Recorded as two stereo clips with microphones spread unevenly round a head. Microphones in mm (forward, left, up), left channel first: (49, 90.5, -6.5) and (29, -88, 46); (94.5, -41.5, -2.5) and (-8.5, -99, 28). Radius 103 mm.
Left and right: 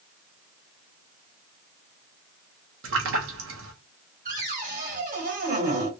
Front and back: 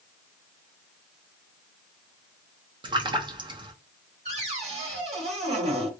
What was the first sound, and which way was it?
A splash, 105° right.